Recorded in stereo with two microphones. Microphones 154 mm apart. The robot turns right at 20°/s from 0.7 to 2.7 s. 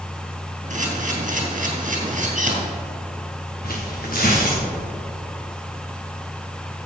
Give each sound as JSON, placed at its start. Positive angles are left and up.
{"t": 0.7, "sound": "a camera shutter", "side_deg": -55, "distance_m": 3.0}
{"t": 3.6, "sound": "tearing paper", "side_deg": 70, "distance_m": 3.0}